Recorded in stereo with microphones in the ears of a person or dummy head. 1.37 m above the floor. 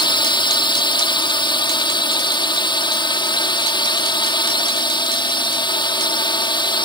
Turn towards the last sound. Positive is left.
turn(degrees=20)  # may be behind; listen again after turning